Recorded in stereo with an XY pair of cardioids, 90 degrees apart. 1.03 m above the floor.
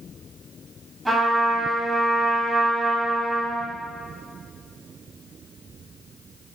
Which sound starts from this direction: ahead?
A trumpet, at 1.1 s.